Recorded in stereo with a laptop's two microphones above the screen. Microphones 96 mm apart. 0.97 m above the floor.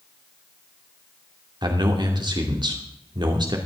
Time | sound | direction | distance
1.6 | a man speaking | 50° right (ahead or behind) | 2.5 m